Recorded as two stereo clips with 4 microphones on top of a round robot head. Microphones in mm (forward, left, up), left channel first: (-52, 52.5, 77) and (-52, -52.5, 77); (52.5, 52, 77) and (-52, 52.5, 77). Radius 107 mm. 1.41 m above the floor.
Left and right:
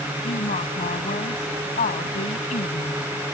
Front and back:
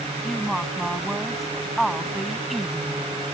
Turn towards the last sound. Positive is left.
turn(degrees=90)